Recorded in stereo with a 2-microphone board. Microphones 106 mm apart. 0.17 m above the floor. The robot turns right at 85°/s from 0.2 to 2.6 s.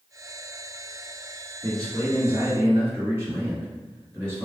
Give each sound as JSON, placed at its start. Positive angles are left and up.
{"t": 1.6, "sound": "a man speaking", "azimuth_deg": -115, "distance_m": 1.9}